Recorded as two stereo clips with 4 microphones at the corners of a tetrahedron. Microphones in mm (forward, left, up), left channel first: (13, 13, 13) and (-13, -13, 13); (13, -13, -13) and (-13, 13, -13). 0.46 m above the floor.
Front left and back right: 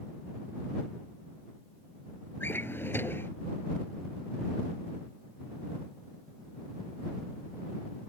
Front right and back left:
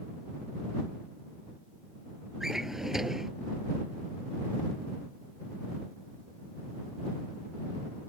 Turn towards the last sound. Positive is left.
turn(degrees=55)